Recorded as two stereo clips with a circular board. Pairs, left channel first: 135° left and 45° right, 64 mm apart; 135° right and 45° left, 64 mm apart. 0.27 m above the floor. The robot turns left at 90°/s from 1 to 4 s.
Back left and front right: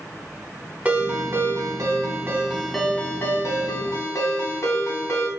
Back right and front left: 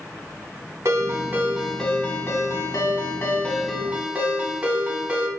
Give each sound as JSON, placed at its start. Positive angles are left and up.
{"t": 0.8, "sound": "a ringtone", "azimuth_deg": 15, "distance_m": 0.7}